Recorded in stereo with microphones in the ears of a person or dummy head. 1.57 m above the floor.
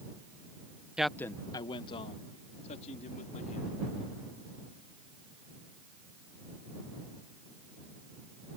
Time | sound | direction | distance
1.0 | a man speaking | 5° right (ahead or behind) | ?